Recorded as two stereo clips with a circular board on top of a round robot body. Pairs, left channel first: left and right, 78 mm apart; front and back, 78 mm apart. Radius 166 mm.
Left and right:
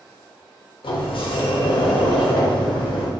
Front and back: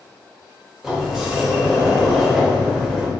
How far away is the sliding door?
About 0.5 m.